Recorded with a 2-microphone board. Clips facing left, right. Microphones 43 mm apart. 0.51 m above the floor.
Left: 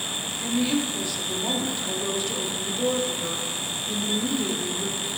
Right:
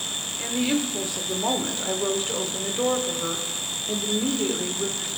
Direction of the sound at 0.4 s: 35° right (ahead or behind).